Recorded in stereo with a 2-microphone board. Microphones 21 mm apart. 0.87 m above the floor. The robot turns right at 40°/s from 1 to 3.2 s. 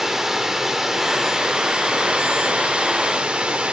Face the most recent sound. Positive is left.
turn(degrees=-65)